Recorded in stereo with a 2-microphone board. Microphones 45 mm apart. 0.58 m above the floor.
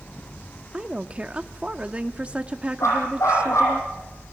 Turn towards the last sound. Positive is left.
turn(degrees=90)